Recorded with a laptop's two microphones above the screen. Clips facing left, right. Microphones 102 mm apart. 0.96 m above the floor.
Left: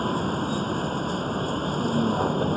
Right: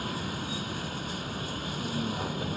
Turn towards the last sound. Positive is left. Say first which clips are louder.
# left 9 dB
turn(degrees=40)  # may be behind; listen again after turning